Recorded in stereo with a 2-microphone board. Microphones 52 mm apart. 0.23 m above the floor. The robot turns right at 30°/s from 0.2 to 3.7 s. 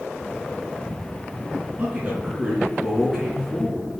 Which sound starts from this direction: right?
A man speaking, at 1.8 s.